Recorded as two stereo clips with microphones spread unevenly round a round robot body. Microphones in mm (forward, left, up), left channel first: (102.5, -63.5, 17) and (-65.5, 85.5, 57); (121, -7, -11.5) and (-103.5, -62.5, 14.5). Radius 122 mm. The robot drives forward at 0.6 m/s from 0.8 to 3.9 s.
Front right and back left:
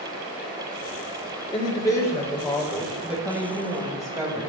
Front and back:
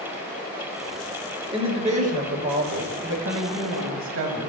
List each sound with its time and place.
1.5 s a woman speaking: 95° right, 1.6 m; by 4.5 s 140° right, 2 m